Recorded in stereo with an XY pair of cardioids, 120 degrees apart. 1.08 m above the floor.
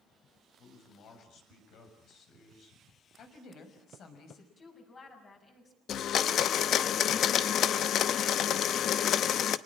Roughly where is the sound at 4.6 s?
Ahead left.